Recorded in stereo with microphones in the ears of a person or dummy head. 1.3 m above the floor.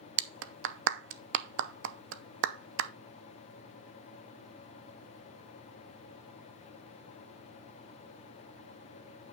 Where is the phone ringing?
No phone ringing in this recording.